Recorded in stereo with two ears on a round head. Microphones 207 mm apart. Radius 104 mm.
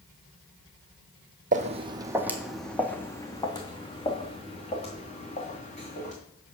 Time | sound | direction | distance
1.5 | footsteps | 35° right (ahead or behind) | 0.7 m